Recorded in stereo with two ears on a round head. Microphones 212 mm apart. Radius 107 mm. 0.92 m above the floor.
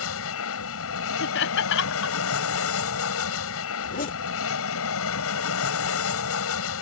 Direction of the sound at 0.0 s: 65° left (ahead or behind).